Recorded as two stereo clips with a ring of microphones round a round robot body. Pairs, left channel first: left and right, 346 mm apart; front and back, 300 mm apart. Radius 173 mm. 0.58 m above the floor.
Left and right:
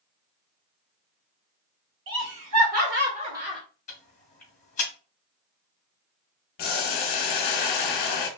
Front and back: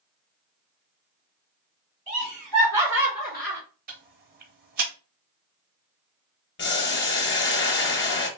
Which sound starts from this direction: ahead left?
Boiling, at 6.6 s.